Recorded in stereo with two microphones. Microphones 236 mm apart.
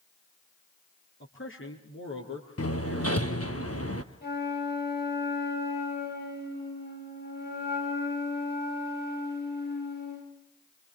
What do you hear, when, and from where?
1.2 s a man speaking: 60° left (ahead or behind), 5 m; by 3.6 s 65° left (ahead or behind), 6 m
2.6 s hammering: 80° left, 1.3 m
4.2 s a flute: 45° left (ahead or behind), 8.5 m